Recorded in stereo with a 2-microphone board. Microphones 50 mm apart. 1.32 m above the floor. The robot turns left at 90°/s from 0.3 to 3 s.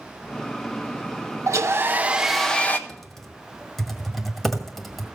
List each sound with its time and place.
1.5 s a hair dryer: 100° right, 0.8 m; by 2.8 s 140° left, 0.8 m
2.9 s typing on a keyboard: 10° left (ahead or behind), 1.5 m; by 5.0 s 5° left (ahead or behind), 1.5 m